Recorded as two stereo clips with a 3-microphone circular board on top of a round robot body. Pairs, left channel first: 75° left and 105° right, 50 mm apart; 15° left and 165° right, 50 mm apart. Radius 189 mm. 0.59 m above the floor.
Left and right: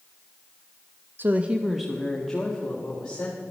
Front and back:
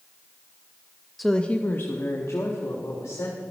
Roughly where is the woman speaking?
Right.